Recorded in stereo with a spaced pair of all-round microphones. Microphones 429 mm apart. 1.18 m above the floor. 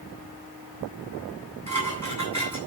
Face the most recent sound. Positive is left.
turn(degrees=-40)  # may be behind; listen again after turning